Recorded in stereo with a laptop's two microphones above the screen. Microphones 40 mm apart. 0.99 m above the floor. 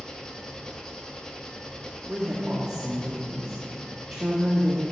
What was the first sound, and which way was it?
An engine running, 15° left (ahead or behind).